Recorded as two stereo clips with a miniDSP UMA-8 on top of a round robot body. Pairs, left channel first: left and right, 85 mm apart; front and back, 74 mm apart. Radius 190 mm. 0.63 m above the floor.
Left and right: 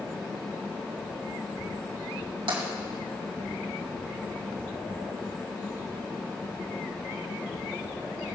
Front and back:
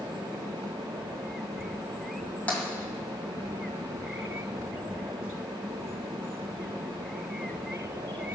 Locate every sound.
2.5 s tapping: 70° right, 2.5 m